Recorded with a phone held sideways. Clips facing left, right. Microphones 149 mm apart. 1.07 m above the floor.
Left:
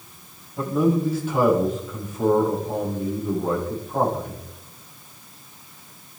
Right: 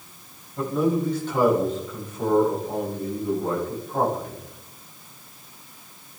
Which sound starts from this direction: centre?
A man speaking, at 0.6 s.